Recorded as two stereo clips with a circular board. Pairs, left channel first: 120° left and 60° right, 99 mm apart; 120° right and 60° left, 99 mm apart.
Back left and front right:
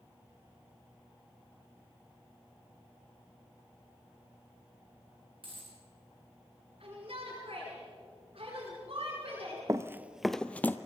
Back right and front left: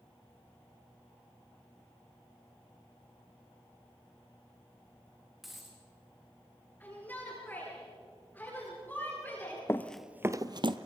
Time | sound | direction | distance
5.4 | a dropped coin | 30° right | 4 m
6.8 | a shout | 45° right | 9 m
9.7 | running footsteps | 80° right | 0.7 m